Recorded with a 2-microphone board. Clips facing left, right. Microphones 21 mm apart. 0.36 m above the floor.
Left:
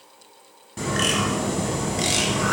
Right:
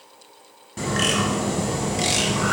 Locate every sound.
0.8 s a bird: centre (ahead or behind), 1.3 m